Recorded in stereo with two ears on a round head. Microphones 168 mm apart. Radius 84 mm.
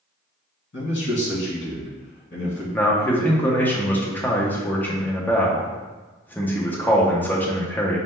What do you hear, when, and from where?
0.7 s a man speaking: 65° left (ahead or behind), 1.8 m
2.7 s a man speaking: 10° left (ahead or behind), 0.8 m